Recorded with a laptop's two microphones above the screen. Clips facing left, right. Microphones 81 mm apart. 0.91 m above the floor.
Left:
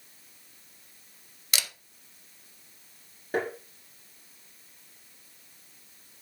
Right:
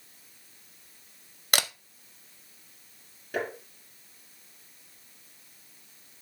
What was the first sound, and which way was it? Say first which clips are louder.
A camera shutter: right 6 dB; 50° right (ahead or behind).